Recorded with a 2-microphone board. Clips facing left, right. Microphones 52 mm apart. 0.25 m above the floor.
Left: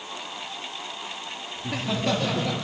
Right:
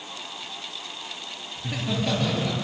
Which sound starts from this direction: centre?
Laughter, at 1.6 s.